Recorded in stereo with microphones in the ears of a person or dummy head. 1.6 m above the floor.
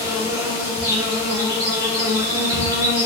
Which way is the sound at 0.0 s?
15° right (ahead or behind).